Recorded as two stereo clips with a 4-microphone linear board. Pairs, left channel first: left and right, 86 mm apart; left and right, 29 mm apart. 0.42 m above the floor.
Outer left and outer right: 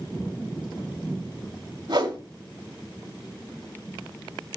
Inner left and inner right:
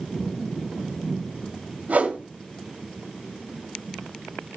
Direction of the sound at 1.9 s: 65° right (ahead or behind).